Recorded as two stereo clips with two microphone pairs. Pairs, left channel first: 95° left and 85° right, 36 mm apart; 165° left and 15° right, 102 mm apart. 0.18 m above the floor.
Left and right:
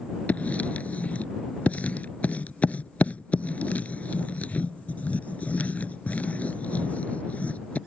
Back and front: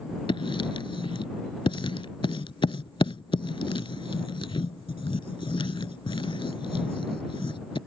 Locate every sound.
0.3 s writing: 140° left